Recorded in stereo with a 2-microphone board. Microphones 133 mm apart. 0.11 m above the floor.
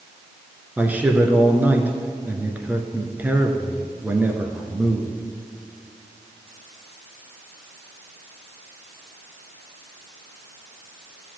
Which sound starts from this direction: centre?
A man speaking, at 0.8 s.